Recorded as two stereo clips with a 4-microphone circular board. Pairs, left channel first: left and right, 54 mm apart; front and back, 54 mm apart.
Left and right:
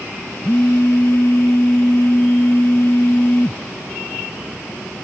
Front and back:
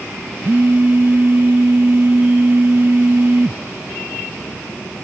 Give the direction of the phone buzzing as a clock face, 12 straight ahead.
8 o'clock.